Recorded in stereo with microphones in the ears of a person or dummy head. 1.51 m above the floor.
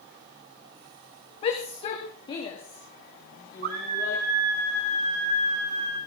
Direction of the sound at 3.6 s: 45° right (ahead or behind).